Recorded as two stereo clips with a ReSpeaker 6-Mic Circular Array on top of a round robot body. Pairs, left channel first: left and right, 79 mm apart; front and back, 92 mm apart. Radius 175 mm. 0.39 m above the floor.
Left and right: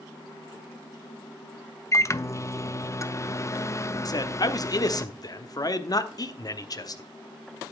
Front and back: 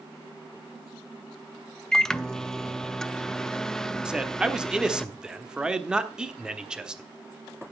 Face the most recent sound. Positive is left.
turn(degrees=100)